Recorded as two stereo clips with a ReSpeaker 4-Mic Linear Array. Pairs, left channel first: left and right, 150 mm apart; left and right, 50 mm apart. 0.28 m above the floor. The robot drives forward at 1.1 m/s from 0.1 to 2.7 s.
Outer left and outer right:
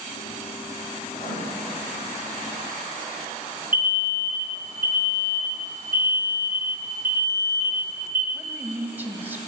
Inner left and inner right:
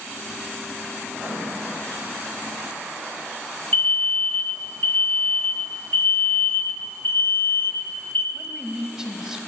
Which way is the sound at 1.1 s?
55° left (ahead or behind).